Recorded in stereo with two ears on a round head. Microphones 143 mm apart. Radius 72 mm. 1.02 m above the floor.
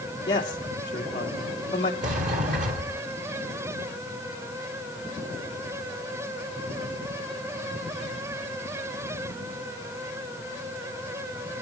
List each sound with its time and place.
0.3 s a man speaking: 25° left (ahead or behind), 2.5 m
2.0 s a sliding door: 55° right (ahead or behind), 2.5 m